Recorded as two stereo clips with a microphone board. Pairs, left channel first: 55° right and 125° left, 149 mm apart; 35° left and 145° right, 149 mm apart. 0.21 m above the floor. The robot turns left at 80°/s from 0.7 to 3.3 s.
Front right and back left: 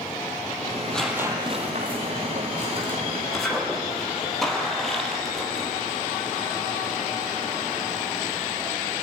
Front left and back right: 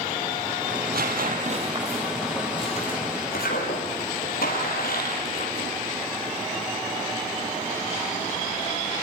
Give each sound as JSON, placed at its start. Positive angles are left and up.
{"t": 0.7, "sound": "tearing paper", "azimuth_deg": -120, "distance_m": 4.5}